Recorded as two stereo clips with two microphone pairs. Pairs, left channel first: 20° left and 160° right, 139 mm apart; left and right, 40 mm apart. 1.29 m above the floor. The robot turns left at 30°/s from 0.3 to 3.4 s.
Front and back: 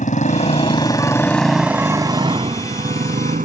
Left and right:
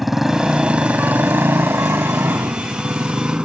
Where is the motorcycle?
5° right; by 3.5 s 150° right.